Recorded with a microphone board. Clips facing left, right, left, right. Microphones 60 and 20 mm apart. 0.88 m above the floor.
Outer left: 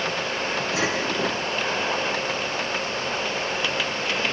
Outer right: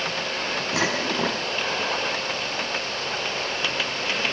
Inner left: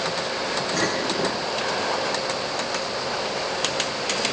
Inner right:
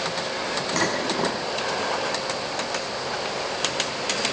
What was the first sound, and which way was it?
Dishes clattering, 65° right (ahead or behind).